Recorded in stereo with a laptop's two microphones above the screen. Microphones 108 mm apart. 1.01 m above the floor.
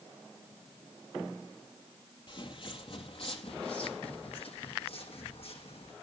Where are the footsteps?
50° left (ahead or behind), 1.5 m; by 5.9 s 65° left (ahead or behind), 3 m.